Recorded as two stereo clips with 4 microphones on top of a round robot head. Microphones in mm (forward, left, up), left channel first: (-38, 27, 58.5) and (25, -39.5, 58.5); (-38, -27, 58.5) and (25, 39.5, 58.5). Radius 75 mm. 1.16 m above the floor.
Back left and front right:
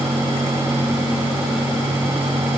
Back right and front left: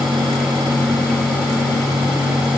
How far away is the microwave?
No microwave in this recording.